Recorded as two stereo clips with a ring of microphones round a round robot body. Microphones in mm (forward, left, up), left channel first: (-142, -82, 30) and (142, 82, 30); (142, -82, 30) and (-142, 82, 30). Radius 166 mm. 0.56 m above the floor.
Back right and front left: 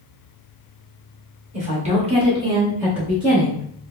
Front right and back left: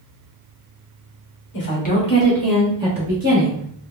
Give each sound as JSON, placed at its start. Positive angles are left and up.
{"t": 1.5, "sound": "a woman speaking", "azimuth_deg": -20, "distance_m": 1.0}